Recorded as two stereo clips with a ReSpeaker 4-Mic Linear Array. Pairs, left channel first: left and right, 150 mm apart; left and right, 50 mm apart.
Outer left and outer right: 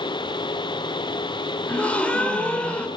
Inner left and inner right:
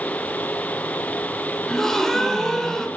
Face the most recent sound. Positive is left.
turn(degrees=10)  # may be behind; listen again after turning